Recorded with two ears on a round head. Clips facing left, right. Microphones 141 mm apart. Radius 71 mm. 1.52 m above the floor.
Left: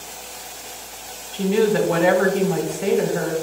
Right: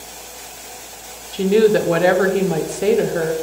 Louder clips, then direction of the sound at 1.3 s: Right 4 dB; 45° right (ahead or behind).